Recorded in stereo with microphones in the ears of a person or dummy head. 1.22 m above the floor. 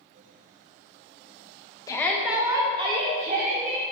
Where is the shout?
15° left (ahead or behind), 1.0 m; by 3.8 s 50° right (ahead or behind), 2.5 m.